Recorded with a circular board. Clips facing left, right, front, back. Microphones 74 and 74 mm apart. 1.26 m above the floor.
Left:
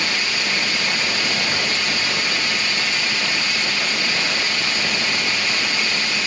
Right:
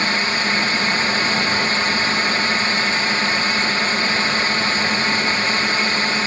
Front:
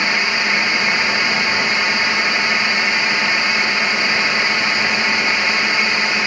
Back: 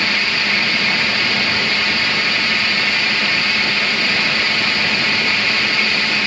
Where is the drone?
60° right.